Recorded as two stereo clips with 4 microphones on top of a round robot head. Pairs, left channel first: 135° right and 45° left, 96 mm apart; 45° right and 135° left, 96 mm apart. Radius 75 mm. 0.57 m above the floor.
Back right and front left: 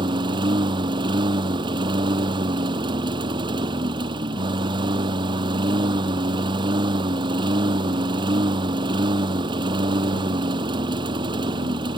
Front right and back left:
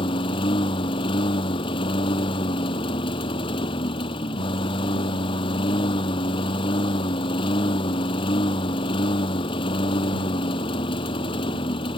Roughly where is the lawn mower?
Ahead.